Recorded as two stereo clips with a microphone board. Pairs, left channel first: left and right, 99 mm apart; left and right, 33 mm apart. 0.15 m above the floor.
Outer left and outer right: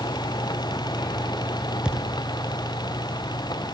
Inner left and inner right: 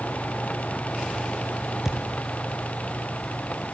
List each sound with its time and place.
1.9 s a thud: 10° right (ahead or behind), 3.5 m